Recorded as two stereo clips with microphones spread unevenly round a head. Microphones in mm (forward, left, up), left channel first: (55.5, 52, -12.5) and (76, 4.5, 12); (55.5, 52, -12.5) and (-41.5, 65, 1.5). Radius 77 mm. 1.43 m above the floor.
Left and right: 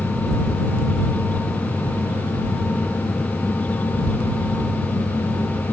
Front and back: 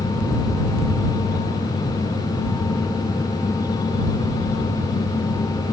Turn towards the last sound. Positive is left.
No sound to turn to.